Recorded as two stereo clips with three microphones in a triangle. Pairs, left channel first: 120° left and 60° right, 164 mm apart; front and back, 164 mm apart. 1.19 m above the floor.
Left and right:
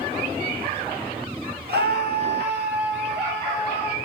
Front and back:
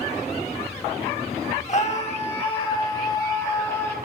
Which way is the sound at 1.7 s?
45° right.